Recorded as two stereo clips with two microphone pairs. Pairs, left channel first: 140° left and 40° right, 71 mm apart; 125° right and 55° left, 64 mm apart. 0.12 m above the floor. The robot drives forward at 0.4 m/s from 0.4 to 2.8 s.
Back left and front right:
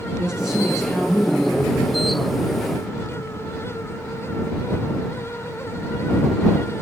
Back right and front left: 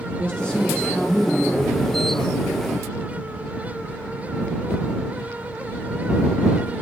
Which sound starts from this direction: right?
A man speaking, at 0.2 s.